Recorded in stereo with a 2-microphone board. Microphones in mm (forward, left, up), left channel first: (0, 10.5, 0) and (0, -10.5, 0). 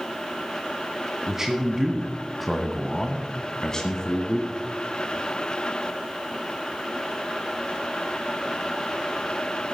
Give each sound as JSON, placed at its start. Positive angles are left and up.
{"t": 1.3, "sound": "a man speaking", "side_deg": -25, "distance_m": 1.5}